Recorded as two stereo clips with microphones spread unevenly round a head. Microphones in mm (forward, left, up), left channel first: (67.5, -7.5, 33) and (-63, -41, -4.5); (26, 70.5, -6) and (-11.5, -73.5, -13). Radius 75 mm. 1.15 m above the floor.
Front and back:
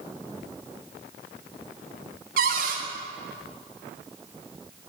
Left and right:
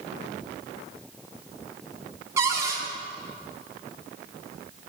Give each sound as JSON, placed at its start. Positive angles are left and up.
{"t": 2.4, "sound": "a cupboard door", "azimuth_deg": -175, "distance_m": 2.5}